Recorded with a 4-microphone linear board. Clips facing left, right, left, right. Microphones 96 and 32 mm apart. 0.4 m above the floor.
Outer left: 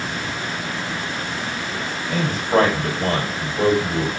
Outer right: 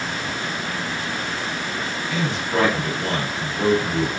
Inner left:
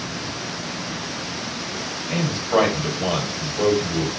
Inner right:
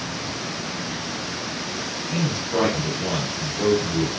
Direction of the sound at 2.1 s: 45° left (ahead or behind).